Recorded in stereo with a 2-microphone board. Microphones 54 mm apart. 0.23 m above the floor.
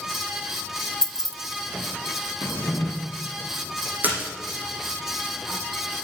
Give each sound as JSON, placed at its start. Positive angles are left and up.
{"t": 1.0, "sound": "keys jangling", "side_deg": 10, "distance_m": 0.7}
{"t": 2.4, "sound": "a drawer", "side_deg": 60, "distance_m": 1.8}
{"t": 4.0, "sound": "a splash", "side_deg": -35, "distance_m": 4.5}